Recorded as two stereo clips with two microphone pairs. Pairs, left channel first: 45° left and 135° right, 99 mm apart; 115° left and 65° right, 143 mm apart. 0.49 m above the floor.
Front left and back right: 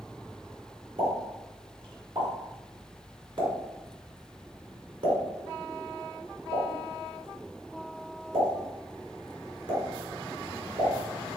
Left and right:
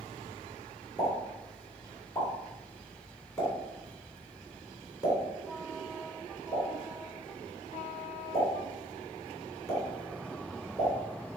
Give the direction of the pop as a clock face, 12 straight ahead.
6 o'clock.